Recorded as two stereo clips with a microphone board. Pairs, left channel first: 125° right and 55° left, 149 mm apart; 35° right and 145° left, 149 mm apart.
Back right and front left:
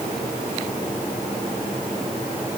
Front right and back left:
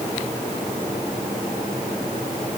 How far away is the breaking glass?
No breaking glass in this recording.